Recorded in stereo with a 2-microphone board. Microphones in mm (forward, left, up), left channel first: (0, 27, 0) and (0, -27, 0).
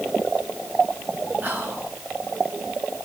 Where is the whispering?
45° right (ahead or behind), 6.5 m.